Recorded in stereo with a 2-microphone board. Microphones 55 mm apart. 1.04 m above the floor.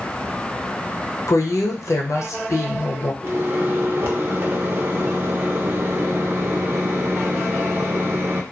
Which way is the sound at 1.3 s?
65° left (ahead or behind).